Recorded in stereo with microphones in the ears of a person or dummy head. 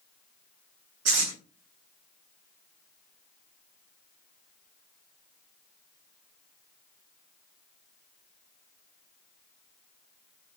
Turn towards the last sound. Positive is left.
turn(degrees=-80)